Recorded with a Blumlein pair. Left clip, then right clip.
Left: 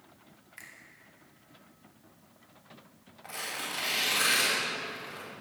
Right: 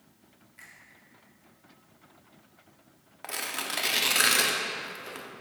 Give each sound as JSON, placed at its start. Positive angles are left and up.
{"t": 0.6, "sound": "a finger snap", "azimuth_deg": 35, "distance_m": 2.0}
{"t": 3.2, "sound": "tearing paper", "azimuth_deg": -55, "distance_m": 1.7}